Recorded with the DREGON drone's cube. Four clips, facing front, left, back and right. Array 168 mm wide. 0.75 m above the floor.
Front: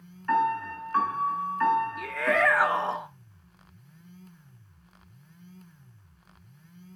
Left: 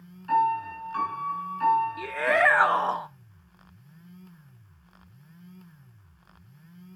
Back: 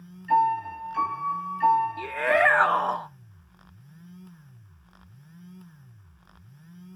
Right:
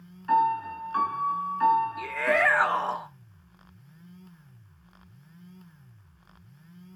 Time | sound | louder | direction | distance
0.3 | a piano | even, back 3 dB | 20° right | 6 m
2.0 | a shout | left 1 dB, back 3 dB | 130° left | 0.6 m